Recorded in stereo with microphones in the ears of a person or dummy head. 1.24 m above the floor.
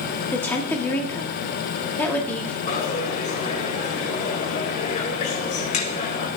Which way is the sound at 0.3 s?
5° left (ahead or behind).